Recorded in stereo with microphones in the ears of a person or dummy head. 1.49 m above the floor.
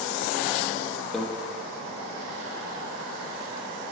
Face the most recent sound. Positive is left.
turn(degrees=0)  # may be behind; listen again after turning